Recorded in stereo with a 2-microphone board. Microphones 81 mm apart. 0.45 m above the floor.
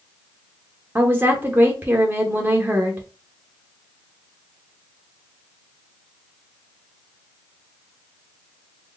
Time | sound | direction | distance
0.9 | a woman speaking | 25° right (ahead or behind) | 0.8 m